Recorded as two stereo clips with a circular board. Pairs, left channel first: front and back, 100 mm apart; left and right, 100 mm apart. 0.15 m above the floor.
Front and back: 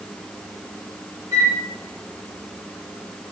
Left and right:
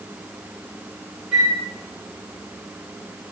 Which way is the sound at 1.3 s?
Straight behind.